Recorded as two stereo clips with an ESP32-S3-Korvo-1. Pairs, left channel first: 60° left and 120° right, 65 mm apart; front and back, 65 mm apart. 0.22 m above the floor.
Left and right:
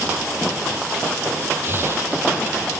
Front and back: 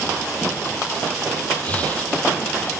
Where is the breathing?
65° right.